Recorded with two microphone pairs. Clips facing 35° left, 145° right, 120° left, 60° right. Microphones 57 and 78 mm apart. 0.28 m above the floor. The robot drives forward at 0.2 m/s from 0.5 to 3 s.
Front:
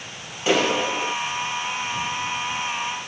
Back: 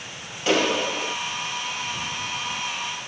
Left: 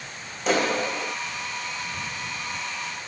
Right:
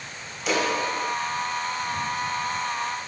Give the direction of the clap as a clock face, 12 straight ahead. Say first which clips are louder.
Front 1 dB, left 1 dB; 8 o'clock.